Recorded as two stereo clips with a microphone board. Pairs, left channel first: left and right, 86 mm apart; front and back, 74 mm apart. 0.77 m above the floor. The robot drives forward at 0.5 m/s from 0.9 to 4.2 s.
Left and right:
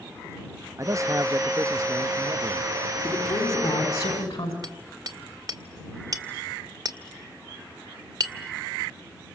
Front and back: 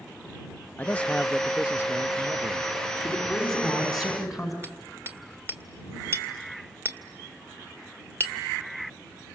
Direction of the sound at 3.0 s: 85° left.